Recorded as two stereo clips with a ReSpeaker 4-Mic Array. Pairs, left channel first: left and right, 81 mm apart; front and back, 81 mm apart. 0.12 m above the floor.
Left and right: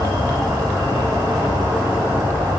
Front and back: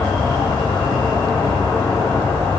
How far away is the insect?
About 1.8 m.